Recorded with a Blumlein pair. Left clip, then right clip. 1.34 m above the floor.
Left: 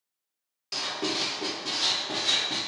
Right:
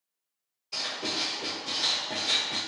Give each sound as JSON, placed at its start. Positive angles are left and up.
{"t": 0.7, "sound": "writing", "azimuth_deg": 55, "distance_m": 1.2}